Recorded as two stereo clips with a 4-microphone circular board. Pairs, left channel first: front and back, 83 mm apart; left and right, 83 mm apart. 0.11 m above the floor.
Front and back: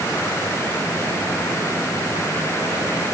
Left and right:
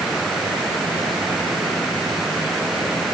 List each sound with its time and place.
Only background noise.